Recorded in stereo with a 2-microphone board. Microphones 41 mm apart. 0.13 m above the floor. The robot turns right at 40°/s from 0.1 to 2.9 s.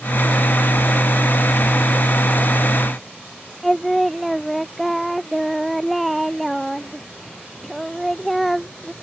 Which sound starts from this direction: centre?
Singing, at 3.6 s.